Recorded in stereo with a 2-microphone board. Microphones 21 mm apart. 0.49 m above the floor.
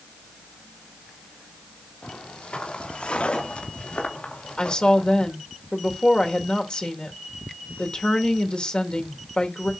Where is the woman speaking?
50° left (ahead or behind), 1.9 m.